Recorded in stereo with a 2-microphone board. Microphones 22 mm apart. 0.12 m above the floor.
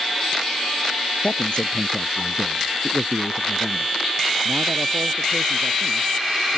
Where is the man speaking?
55° left (ahead or behind); by 6.6 s 80° right.